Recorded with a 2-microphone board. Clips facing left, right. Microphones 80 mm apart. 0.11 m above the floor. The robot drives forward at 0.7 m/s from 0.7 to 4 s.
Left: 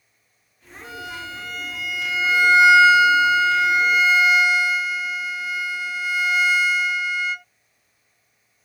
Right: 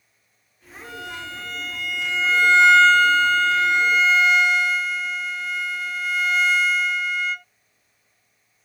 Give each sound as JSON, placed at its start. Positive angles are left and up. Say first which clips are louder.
{"t": 0.8, "sound": "a violin", "louder": "left 1 dB", "side_deg": 5}